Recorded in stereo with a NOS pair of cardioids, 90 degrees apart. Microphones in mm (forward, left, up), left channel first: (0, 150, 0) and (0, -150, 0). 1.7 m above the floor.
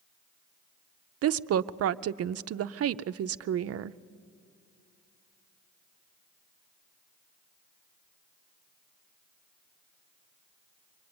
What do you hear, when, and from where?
1.2 s a woman speaking: 55° right, 0.6 m